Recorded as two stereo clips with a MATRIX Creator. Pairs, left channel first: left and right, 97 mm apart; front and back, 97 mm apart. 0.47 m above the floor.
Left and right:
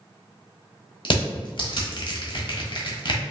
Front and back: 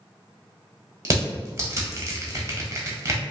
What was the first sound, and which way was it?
Crushing, 120° left.